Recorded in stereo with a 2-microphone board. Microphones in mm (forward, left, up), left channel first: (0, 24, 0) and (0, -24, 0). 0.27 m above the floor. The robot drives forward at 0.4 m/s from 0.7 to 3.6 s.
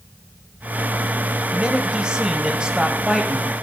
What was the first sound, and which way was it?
A man speaking, 20° right (ahead or behind).